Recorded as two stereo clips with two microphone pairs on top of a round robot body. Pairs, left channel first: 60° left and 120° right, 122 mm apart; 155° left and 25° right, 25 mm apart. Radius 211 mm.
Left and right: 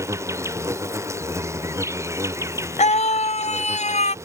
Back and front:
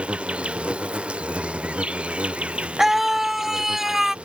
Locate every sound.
0.0 s an insect: 55° right
2.8 s a scream: 45° left